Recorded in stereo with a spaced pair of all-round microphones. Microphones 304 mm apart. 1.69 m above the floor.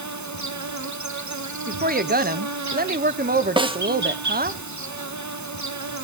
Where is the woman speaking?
30° right (ahead or behind), 0.6 m.